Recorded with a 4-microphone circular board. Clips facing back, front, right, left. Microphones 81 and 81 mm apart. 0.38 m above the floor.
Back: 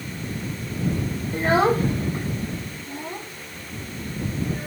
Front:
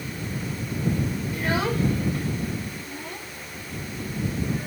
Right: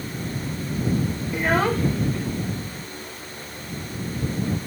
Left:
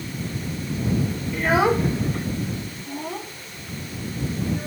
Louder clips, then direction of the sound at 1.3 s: Back 7 dB, left 2 dB; 160° right.